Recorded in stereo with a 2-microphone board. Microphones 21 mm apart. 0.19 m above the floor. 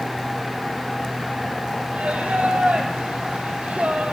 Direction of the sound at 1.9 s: 75° right (ahead or behind).